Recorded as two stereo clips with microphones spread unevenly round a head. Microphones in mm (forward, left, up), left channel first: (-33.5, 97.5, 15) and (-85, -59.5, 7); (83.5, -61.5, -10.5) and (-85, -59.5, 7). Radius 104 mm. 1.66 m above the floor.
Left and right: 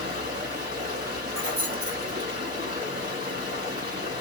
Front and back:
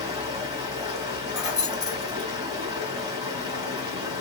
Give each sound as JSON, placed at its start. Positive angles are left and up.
{"t": 0.0, "sound": "running water", "azimuth_deg": -125, "distance_m": 2.5}
{"t": 1.3, "sound": "keys jangling", "azimuth_deg": -95, "distance_m": 1.7}